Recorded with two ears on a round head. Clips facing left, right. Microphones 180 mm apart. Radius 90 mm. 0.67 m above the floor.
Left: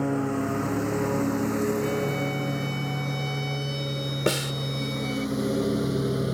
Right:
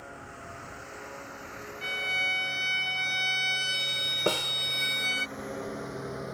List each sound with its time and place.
0.0 s a lawn mower: 70° left (ahead or behind); by 6.3 s 45° left (ahead or behind)
1.8 s a violin: 60° right (ahead or behind)
4.3 s a snare drum: 20° left (ahead or behind)